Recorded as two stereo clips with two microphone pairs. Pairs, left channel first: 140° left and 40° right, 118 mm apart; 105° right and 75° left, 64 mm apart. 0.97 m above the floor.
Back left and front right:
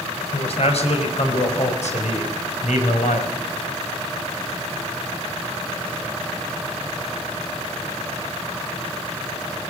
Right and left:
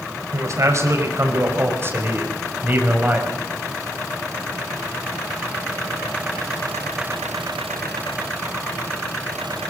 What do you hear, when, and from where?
0.3 s a man speaking: 110° left, 5 m; by 3.3 s 140° left, 5.5 m